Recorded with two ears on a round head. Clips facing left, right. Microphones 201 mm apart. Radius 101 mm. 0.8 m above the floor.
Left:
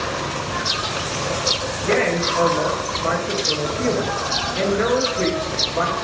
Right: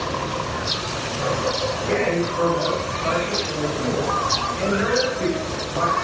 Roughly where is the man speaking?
Left.